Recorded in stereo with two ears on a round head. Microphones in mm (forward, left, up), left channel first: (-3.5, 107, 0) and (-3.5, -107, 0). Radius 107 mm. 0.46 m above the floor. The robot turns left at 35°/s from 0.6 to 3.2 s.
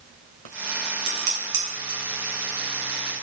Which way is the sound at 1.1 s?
65° right (ahead or behind).